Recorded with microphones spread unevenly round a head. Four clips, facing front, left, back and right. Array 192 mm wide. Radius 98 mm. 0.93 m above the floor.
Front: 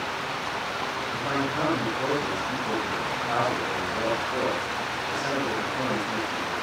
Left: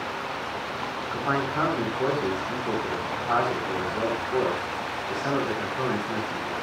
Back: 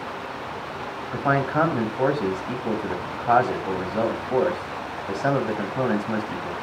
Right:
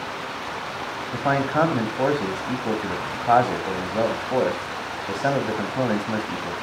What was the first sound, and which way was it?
A man speaking, 125° right.